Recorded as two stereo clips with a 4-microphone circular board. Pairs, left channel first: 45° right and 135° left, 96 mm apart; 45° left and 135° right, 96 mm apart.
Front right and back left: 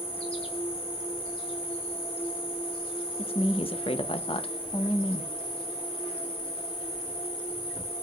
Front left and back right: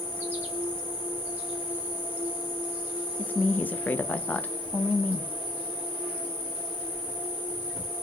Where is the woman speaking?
25° right, 0.6 m.